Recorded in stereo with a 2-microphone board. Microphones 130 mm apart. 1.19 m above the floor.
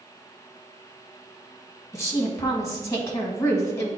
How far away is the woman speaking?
About 1.6 m.